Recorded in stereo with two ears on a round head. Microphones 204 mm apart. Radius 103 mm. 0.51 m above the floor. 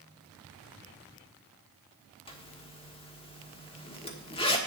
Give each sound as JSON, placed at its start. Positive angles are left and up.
{"t": 2.3, "sound": "a zipper", "side_deg": 25, "distance_m": 1.2}